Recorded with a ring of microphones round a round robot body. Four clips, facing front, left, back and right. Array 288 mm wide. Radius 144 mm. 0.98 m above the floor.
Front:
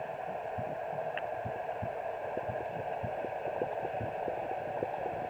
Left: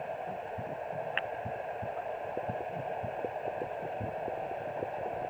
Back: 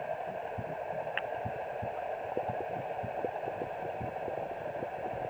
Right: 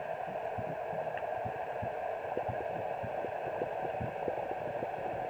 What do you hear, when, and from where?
Only background noise.